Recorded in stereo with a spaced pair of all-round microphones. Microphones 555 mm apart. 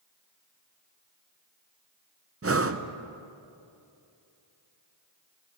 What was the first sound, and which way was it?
Breathing, 25° right (ahead or behind).